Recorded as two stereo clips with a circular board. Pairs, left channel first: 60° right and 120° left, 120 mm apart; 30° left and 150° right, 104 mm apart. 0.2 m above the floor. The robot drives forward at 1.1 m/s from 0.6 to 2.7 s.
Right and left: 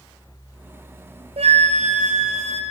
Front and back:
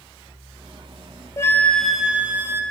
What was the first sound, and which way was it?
A flute, 90° left.